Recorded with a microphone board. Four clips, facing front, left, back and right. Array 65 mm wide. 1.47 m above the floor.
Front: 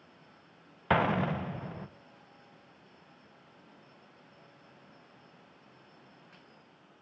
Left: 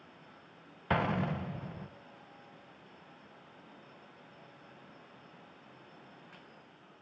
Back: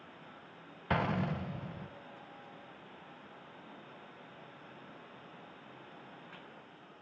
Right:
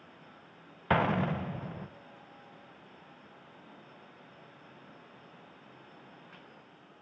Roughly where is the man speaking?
I don't hear a man speaking.